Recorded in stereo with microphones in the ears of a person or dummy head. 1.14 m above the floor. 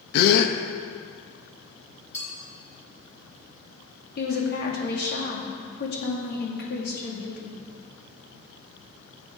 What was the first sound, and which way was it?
A gasp, 65° left (ahead or behind).